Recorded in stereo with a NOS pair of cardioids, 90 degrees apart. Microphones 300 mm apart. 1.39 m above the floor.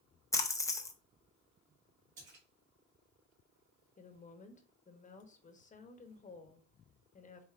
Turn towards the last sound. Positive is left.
turn(degrees=25)